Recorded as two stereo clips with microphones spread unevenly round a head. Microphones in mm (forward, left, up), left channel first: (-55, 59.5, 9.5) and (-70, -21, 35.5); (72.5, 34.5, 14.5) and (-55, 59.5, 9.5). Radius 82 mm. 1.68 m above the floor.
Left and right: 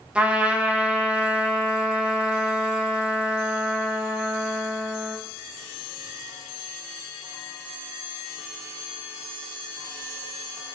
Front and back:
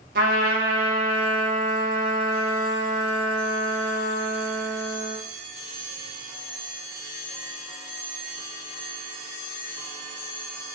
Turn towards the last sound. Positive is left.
turn(degrees=-170)